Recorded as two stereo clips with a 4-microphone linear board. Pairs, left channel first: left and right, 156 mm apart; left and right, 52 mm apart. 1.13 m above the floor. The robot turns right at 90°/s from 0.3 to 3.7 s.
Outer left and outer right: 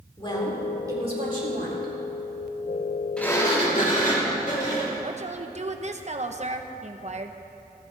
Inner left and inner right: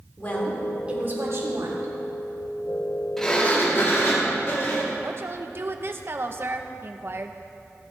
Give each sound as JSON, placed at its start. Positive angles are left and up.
{"t": 0.2, "sound": "a woman speaking", "azimuth_deg": 150, "distance_m": 3.5}
{"t": 3.2, "sound": "a sliding door", "azimuth_deg": 5, "distance_m": 3.5}
{"t": 5.0, "sound": "a woman speaking", "side_deg": -45, "distance_m": 1.0}